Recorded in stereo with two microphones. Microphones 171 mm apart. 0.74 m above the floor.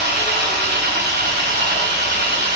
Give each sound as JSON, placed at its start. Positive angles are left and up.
{"t": 0.0, "sound": "an engine running", "side_deg": -80, "distance_m": 0.8}